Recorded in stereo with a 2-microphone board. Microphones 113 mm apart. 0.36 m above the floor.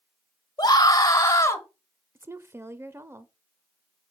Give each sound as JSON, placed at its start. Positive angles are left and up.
{"t": 0.6, "sound": "a scream", "side_deg": 35, "distance_m": 1.6}
{"t": 2.1, "sound": "a woman speaking", "side_deg": -20, "distance_m": 0.9}